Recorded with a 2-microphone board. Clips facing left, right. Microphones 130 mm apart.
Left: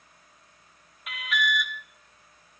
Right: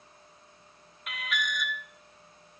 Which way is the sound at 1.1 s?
Centre (ahead or behind).